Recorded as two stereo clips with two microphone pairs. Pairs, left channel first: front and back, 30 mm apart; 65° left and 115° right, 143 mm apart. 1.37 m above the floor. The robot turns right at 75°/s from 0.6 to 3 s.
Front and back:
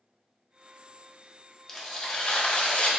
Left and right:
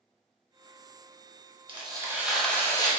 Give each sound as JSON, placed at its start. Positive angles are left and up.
{"t": 1.7, "sound": "tearing paper", "azimuth_deg": -75, "distance_m": 0.9}